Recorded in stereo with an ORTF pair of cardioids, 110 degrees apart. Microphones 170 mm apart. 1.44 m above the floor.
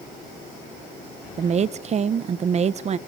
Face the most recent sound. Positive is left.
turn(degrees=-40)